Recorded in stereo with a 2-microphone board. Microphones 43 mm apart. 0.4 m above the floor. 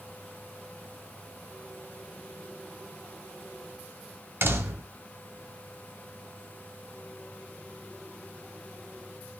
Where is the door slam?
55° right (ahead or behind), 1.5 m.